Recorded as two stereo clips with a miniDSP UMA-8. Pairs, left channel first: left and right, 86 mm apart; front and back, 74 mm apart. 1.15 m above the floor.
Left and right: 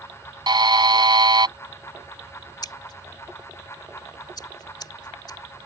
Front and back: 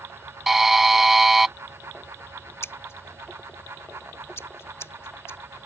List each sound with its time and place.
0.5 s a buzzer: 95° right
2.6 s scissors: 55° left